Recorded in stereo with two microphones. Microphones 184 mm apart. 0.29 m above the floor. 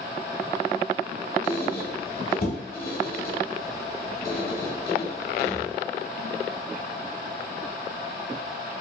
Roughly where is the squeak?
Left.